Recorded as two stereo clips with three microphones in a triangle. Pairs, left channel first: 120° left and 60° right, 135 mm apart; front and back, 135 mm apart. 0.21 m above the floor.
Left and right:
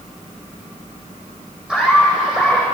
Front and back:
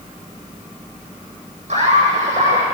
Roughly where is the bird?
I don't hear a bird.